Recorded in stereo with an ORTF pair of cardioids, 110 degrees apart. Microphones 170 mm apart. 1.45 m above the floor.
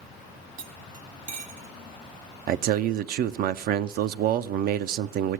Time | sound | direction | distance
0.6 | cutlery clinking | 55° right | 1.7 m
2.5 | a man speaking | 65° right | 0.5 m